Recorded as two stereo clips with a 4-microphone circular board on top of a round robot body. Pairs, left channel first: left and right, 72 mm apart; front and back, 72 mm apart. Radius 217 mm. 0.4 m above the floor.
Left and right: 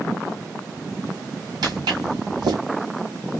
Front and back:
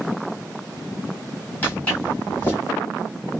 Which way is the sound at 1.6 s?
70° right.